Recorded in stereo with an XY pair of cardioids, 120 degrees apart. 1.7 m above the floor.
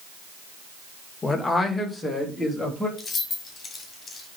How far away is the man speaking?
About 1.5 m.